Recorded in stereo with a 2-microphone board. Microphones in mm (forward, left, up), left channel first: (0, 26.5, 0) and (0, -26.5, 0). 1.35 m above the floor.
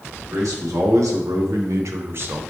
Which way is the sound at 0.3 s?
80° right.